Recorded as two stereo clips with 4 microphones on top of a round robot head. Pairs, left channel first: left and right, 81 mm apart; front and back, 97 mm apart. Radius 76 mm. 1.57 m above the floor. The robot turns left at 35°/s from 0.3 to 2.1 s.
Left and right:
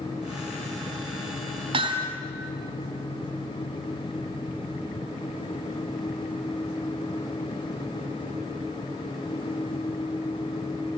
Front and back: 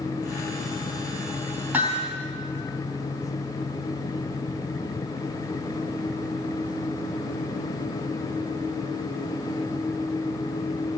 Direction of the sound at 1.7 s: 100° right.